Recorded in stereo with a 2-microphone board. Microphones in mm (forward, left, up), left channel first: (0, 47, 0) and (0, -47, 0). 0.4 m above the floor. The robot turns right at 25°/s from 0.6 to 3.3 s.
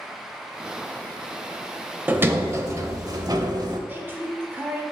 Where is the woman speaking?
25° right (ahead or behind), 0.9 m.